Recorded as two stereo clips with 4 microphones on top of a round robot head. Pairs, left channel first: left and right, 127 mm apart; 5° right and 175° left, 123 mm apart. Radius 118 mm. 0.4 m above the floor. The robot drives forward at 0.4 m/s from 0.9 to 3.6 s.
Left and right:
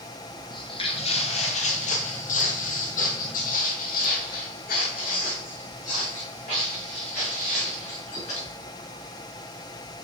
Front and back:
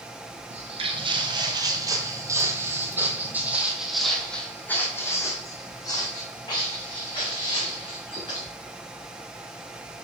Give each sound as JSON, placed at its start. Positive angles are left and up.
{"t": 0.5, "sound": "footsteps", "azimuth_deg": 145, "distance_m": 1.0}